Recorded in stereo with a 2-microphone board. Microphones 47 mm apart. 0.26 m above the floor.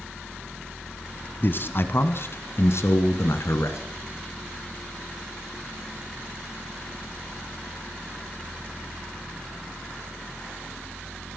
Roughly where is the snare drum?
I don't hear a snare drum.